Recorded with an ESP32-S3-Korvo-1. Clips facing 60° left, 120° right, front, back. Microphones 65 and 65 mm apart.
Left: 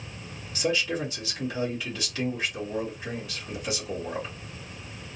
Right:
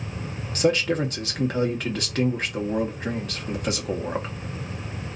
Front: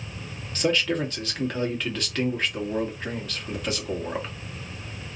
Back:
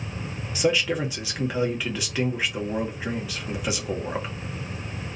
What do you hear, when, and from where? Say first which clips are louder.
0.6 s a man speaking: right 6 dB, back 1 dB; 100° right, 1.3 m